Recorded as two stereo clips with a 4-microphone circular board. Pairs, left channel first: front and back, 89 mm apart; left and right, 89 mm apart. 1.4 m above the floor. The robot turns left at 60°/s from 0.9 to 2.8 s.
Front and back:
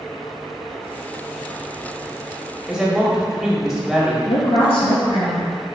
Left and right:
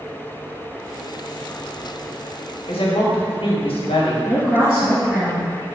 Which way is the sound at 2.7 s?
100° left.